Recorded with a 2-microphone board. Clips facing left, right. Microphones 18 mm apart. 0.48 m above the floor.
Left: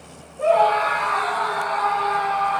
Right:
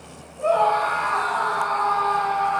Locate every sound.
0.4 s a scream: 75° left (ahead or behind), 8 m; by 2.6 s 80° left, 8 m